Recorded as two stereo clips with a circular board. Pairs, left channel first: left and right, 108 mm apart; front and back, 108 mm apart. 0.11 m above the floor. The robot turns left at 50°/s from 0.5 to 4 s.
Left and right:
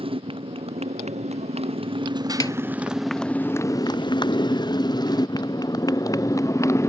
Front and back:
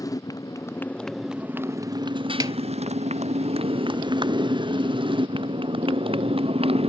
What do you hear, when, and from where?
0.0 s a motorcycle: 55° right; by 6.9 s 155° left
2.4 s a snare drum: 135° left; by 2.6 s 125° left